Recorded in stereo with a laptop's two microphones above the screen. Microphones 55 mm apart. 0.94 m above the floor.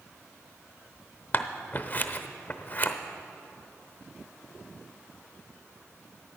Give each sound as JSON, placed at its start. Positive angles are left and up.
{"t": 1.3, "sound": "scissors", "side_deg": 35, "distance_m": 0.7}